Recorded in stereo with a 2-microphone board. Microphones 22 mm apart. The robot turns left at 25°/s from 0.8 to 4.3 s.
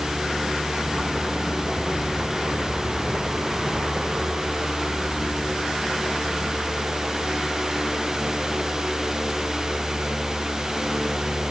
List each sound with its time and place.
Only background noise.